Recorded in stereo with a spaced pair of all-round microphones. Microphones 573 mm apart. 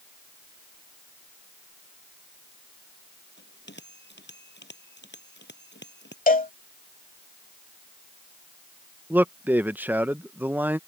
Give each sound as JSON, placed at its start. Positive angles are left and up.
{"t": 3.4, "sound": "a bell", "side_deg": 20}
{"t": 6.3, "sound": "a cowbell", "side_deg": 15}
{"t": 9.1, "sound": "a man speaking", "side_deg": -5}